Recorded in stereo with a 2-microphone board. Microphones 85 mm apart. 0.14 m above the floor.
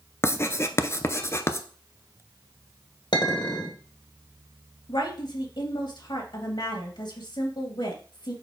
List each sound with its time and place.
0.2 s writing: 30° left (ahead or behind), 0.6 m
3.1 s a clink: 60° left (ahead or behind), 2.5 m
4.9 s a woman speaking: 55° left (ahead or behind), 2.5 m